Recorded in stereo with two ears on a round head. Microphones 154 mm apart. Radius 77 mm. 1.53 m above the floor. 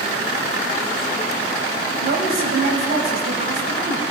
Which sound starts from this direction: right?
A woman speaking, at 2.0 s.